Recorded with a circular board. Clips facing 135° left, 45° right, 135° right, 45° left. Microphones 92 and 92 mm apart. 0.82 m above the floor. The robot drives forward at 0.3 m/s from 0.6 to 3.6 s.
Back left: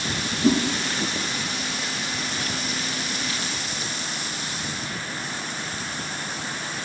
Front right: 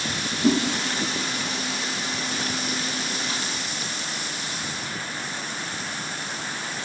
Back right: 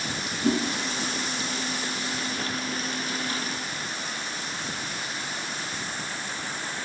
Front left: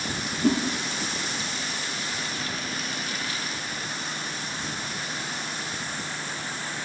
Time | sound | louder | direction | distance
0.4 | a whoosh | back left 1 dB, front left 1 dB | 25° left | 1.4 m